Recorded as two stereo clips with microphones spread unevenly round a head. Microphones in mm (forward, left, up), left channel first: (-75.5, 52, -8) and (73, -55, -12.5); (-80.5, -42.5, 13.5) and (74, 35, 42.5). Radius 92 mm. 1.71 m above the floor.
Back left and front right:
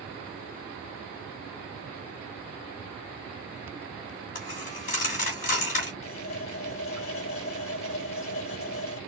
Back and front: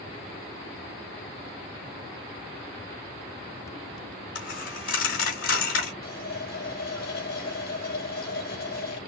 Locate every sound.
4.3 s a dropped coin: 170° left, 2.5 m
6.0 s a running tap: 165° left, 4 m